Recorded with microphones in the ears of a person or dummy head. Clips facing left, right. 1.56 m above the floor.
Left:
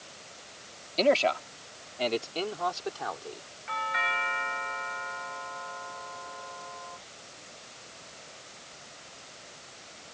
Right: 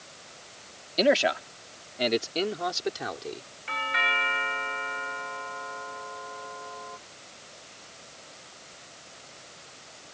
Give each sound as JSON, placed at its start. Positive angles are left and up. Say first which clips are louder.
{"t": 1.0, "sound": "a man speaking", "louder": "right 1 dB", "side_deg": -10}
{"t": 3.7, "sound": "a doorbell", "louder": "right 1 dB", "side_deg": -45}